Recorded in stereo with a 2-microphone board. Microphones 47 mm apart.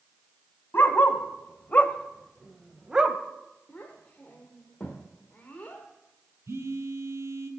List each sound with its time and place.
0.7 s a dog barking: 55° left (ahead or behind), 1.4 m; by 3.2 s 20° right (ahead or behind), 1.2 m
3.7 s a child speaking: 30° left (ahead or behind), 1.5 m
6.5 s a phone buzzing: 80° right, 1.3 m